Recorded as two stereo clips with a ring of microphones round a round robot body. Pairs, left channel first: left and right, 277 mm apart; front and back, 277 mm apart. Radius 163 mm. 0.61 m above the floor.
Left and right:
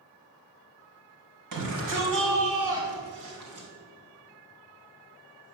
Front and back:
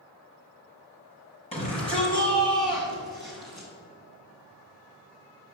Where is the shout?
70° right, 4 m; by 3.7 s 80° right, 5.5 m.